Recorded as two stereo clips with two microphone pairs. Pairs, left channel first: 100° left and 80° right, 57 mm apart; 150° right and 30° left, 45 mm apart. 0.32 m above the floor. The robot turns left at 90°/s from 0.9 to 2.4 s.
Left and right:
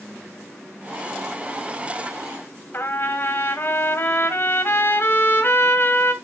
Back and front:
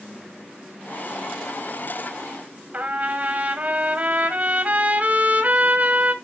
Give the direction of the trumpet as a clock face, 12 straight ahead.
9 o'clock.